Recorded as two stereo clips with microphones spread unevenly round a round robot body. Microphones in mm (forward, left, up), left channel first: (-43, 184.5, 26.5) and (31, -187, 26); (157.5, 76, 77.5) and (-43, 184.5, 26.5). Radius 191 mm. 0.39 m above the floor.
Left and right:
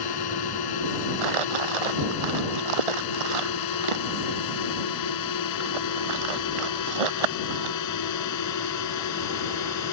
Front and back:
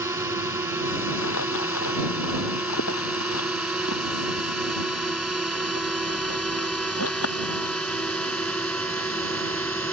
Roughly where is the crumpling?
Right.